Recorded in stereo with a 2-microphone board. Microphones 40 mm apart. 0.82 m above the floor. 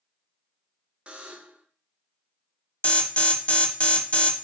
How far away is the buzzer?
About 0.7 m.